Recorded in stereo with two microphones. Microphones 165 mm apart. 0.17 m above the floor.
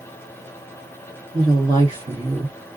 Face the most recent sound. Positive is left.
turn(degrees=-35)  # may be behind; listen again after turning